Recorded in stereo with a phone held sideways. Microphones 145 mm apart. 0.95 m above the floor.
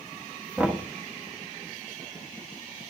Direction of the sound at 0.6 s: 10° right (ahead or behind).